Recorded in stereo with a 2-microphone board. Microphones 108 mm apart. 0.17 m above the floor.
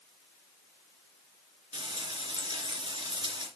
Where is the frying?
45° right (ahead or behind), 3 m.